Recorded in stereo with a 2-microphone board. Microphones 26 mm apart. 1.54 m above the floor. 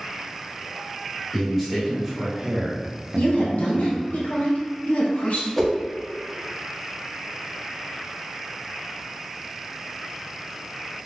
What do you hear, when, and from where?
1.3 s a man speaking: 5° right (ahead or behind), 1.5 m; by 4.2 s 55° right (ahead or behind), 0.9 m
3.2 s a woman speaking: 65° left (ahead or behind), 1.1 m
5.6 s a whoosh: 5° left (ahead or behind), 0.6 m